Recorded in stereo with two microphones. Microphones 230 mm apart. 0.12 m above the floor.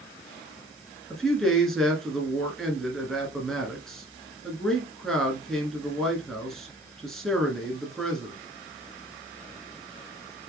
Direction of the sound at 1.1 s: Centre (ahead or behind).